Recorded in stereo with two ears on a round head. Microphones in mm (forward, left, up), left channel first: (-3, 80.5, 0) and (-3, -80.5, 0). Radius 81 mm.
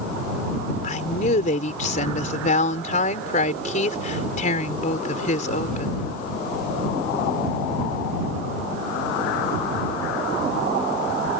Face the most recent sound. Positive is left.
turn(degrees=45)  # may be behind; listen again after turning